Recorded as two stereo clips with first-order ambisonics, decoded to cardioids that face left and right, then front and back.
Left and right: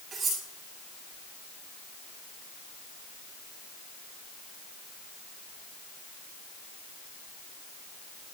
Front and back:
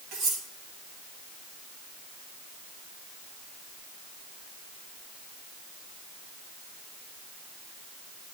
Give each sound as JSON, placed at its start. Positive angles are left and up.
{"t": 0.1, "sound": "cutlery clinking", "azimuth_deg": -155, "distance_m": 8.5}